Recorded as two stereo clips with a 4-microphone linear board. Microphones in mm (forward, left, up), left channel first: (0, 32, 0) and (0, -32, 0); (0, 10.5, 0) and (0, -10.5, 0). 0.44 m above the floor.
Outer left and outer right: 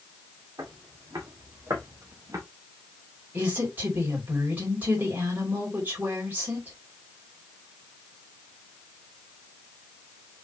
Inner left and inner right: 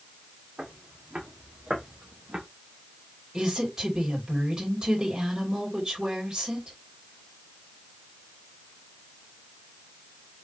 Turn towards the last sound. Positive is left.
turn(degrees=-30)  # may be behind; listen again after turning